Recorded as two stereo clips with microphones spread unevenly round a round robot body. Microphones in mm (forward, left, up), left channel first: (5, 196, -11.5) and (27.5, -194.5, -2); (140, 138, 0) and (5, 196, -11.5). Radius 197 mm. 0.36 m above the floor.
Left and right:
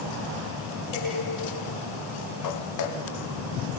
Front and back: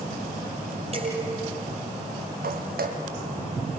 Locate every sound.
0.9 s dishes clattering: 110° left, 8.5 m
2.4 s footsteps: 140° left, 5 m